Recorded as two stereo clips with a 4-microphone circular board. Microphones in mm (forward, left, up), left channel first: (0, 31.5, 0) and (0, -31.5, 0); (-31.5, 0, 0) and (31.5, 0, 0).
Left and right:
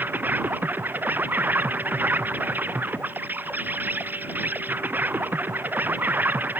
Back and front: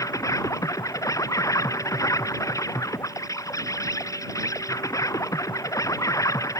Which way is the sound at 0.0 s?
150° right.